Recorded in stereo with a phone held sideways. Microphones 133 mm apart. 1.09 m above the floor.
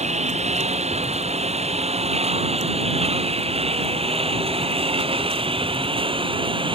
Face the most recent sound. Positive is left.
turn(degrees=-40)  # may be behind; listen again after turning